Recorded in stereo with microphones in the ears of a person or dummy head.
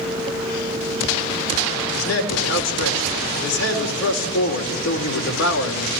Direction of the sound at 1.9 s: 85° left.